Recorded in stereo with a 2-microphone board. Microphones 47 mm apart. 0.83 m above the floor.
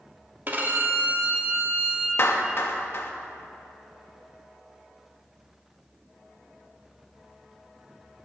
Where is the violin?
40° right (ahead or behind), 1.5 m.